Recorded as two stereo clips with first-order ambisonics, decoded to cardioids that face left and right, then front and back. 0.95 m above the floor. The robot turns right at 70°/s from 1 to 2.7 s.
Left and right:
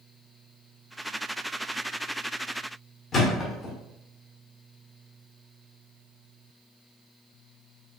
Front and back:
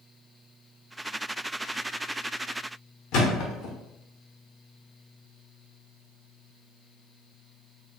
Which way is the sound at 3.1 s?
30° left.